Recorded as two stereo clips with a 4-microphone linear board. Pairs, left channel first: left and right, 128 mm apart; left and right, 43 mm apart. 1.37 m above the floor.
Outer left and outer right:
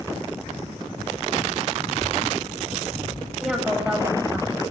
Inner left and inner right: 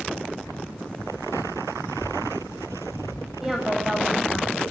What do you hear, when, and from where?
1.9 s a child speaking: 45° left (ahead or behind), 4 m; by 3.3 s 55° left (ahead or behind), 4 m
3.4 s a woman speaking: 5° right (ahead or behind), 8 m